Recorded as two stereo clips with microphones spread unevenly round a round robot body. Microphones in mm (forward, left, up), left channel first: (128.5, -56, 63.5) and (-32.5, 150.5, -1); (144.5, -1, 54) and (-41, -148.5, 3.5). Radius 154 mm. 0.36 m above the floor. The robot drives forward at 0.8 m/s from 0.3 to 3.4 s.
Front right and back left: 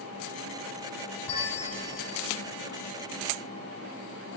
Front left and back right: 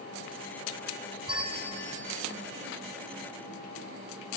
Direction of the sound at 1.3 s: 70° right.